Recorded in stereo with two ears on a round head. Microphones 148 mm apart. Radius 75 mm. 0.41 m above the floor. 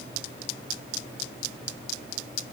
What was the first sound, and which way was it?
Only background noise.